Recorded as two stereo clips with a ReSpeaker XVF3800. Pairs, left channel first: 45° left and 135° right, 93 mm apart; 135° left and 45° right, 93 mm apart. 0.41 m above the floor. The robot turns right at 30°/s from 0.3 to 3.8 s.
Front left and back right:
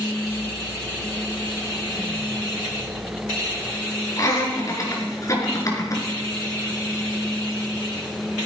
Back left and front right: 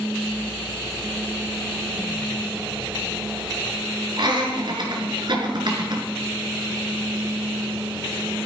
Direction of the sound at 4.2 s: 10° right.